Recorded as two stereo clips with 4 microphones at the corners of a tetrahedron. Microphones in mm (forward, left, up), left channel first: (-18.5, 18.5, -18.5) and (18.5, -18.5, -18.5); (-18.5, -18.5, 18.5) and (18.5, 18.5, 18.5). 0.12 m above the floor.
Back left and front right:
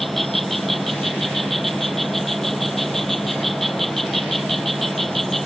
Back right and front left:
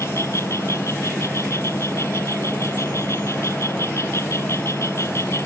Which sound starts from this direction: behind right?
An insect, at 0.0 s.